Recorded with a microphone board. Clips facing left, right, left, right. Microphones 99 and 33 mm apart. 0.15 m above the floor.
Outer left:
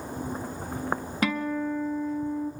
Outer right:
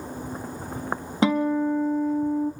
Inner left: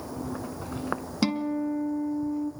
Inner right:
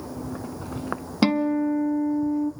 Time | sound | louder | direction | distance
1.2 | a guitar | outer right 8 dB, inner right 7 dB | 25° right (ahead or behind) | 0.8 m